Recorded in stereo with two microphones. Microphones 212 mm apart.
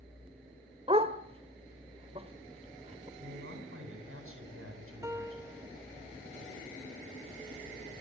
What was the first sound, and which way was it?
A dog barking, 25° right (ahead or behind).